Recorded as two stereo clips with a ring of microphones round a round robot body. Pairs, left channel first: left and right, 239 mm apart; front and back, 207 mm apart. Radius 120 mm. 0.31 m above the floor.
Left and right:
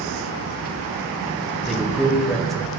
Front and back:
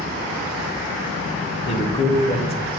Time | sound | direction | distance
1.7 | a man speaking | straight ahead | 1.0 m